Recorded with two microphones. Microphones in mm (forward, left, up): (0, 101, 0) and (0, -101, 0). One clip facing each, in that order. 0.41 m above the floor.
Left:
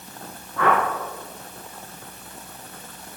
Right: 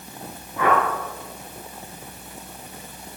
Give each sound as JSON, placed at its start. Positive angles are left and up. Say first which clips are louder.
{"t": 0.6, "sound": "a whoosh", "louder": "even", "side_deg": -15, "distance_m": 4.5}